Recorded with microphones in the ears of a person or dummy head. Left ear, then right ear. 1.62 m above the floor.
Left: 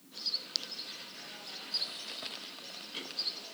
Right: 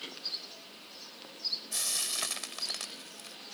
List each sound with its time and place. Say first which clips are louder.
1.7 s frying: left 2 dB; 60° right (ahead or behind)